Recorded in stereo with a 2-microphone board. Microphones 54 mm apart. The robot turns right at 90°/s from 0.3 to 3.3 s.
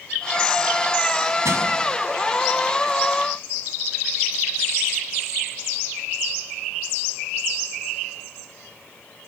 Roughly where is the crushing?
Right.